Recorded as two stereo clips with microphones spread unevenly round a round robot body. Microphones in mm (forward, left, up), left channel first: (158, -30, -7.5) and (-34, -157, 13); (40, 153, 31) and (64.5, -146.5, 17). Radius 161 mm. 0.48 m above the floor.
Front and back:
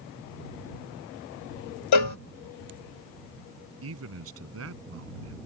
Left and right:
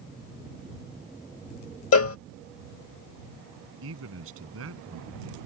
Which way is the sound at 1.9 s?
50° left.